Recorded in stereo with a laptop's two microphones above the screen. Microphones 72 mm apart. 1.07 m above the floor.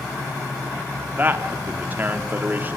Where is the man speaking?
25° right (ahead or behind), 2.5 m.